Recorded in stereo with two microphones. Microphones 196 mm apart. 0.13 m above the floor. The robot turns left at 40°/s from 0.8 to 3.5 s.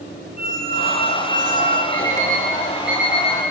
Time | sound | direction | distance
0.4 | a squeak | 50° right | 3.5 m
1.9 | an alarm clock | 25° right (ahead or behind) | 5.5 m